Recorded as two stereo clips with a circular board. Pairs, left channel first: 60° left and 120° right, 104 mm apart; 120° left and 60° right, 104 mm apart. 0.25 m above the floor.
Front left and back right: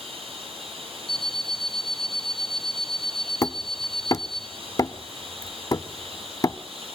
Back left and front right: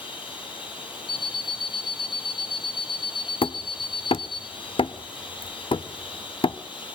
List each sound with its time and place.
0.0 s running water: 135° right, 6.5 m
1.1 s an alarm clock: 30° left, 1.3 m
3.4 s hammering: 110° left, 0.6 m